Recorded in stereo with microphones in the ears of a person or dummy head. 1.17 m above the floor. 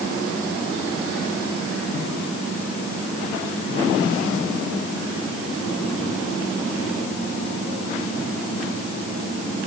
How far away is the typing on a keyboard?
I don't hear typing on a keyboard.